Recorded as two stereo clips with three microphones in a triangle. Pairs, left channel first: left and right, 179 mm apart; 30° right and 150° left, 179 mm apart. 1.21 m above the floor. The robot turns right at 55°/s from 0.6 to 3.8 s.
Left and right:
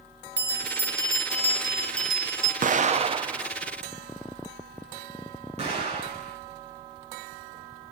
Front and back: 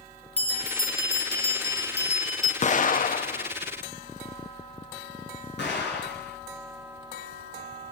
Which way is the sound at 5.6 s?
35° right.